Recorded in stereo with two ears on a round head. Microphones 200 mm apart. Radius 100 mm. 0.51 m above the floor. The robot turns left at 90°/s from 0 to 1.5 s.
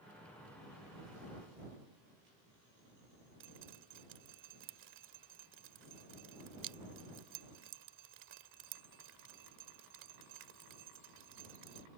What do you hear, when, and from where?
3.4 s dripping: 60° right (ahead or behind)